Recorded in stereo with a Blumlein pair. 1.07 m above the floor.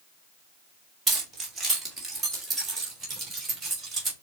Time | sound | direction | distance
1.1 | keys jangling | 20° right | 1.3 m